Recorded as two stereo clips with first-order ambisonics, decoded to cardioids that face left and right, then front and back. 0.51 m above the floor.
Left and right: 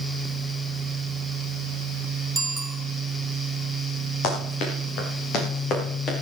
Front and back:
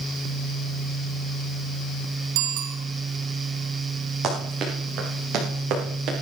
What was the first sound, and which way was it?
A bicycle bell, 175° right.